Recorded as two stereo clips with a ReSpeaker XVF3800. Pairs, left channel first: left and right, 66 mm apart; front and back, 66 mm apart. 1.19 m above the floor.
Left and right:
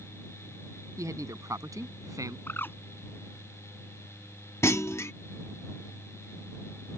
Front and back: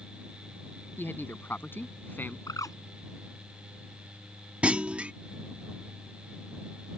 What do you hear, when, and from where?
1.0 s a man speaking: 55° right; by 2.4 s 60° right
2.5 s a bird: 30° left
4.6 s a clunk: 115° left